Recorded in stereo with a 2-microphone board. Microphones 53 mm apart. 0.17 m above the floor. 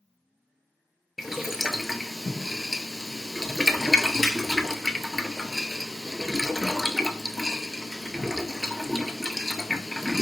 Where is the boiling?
5° right (ahead or behind), 0.6 m.